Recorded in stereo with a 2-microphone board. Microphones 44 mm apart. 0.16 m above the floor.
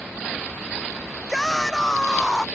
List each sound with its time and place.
1.3 s a shout: 10° left (ahead or behind)